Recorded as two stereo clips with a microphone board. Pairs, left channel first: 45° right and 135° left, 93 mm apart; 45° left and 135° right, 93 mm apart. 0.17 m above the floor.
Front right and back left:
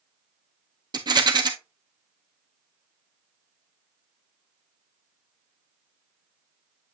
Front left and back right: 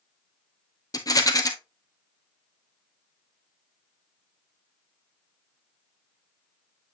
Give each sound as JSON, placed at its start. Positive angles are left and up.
{"t": 0.9, "sound": "a rattle", "azimuth_deg": 95, "distance_m": 1.0}